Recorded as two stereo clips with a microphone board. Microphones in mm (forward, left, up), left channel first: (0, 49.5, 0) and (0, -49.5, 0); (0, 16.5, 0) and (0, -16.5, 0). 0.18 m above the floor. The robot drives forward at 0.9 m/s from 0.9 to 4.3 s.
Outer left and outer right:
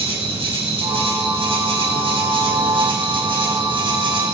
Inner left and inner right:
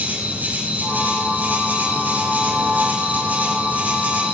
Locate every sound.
0.0 s an insect: 70° right (ahead or behind), 9.5 m; by 4.4 s 55° right (ahead or behind), 11 m